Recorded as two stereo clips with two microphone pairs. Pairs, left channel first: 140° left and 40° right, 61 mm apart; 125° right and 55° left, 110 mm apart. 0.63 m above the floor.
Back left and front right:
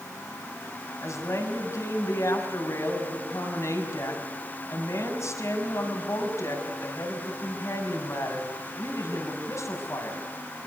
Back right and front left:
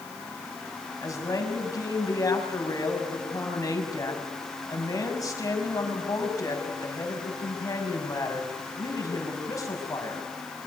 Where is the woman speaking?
175° left, 5.5 m.